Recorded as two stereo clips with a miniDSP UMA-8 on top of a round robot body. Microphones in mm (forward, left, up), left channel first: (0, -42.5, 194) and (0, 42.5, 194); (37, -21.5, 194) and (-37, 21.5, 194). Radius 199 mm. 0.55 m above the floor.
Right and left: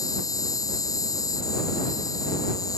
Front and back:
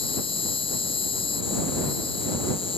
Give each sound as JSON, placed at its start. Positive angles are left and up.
{"t": 0.0, "sound": "an insect", "azimuth_deg": -40}